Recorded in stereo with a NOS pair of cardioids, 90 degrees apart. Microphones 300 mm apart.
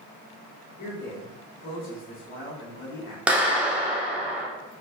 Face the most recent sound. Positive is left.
turn(degrees=-5)